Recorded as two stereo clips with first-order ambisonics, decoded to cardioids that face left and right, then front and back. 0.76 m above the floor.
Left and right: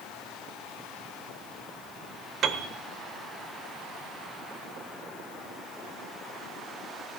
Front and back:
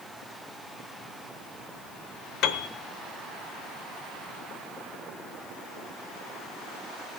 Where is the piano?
30° right, 0.9 m.